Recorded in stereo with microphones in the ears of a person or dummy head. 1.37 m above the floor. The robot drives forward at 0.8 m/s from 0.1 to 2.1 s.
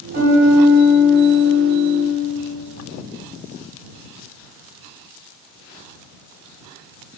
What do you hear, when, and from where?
0.1 s a piano: 45° right (ahead or behind), 1.6 m; by 2.1 s 40° right (ahead or behind), 1.9 m